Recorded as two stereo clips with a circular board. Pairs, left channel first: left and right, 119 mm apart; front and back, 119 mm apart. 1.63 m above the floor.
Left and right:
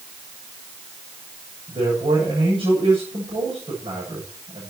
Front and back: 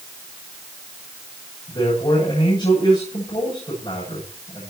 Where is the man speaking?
45° right, 8 m.